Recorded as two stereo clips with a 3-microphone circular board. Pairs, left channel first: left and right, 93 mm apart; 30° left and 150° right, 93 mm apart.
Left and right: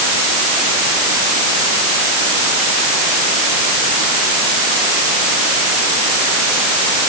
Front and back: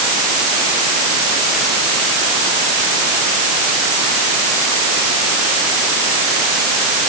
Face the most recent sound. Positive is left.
No sound to turn to.